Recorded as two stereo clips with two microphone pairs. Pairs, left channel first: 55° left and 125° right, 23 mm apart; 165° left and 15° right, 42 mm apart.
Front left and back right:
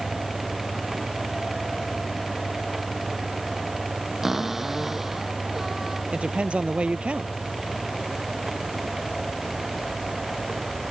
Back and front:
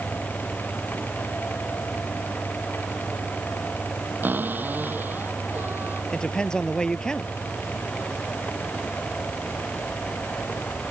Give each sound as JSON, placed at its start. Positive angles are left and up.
{"t": 4.2, "sound": "a cupboard door", "azimuth_deg": -45}
{"t": 6.1, "sound": "a woman speaking", "azimuth_deg": -125}